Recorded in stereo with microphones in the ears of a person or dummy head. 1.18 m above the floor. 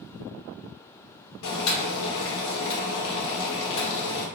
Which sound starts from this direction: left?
Boiling, at 1.4 s.